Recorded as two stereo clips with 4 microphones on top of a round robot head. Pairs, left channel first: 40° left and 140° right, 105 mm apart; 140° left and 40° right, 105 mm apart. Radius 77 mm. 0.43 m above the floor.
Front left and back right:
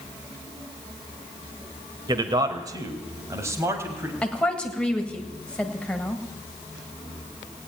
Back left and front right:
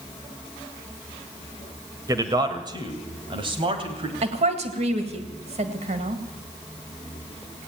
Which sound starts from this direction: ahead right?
A woman speaking, at 4.2 s.